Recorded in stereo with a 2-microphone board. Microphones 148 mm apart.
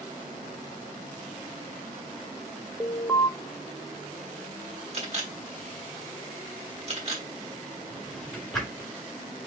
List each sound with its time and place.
2.8 s an alarm: 15° left (ahead or behind), 0.7 m
4.9 s a camera shutter: 45° right (ahead or behind), 1.6 m
7.9 s a drawer: centre (ahead or behind), 2.5 m